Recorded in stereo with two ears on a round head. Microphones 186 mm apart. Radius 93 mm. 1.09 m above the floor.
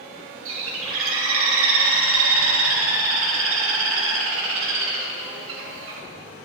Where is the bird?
70° right (ahead or behind), 1.9 m.